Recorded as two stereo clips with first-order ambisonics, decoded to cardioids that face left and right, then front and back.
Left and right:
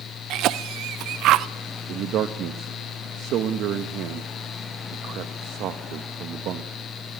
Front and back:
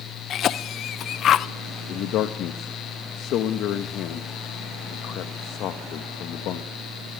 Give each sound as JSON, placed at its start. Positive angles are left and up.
{"t": 0.3, "sound": "a cough", "azimuth_deg": -50, "distance_m": 0.6}
{"t": 1.9, "sound": "a man speaking", "azimuth_deg": -45, "distance_m": 1.0}